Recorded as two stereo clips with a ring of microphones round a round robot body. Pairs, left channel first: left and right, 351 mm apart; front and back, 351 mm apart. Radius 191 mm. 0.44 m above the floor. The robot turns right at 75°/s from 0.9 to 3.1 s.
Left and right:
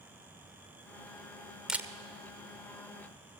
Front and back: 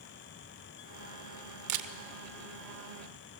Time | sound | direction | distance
1.7 | a camera shutter | straight behind | 1.3 m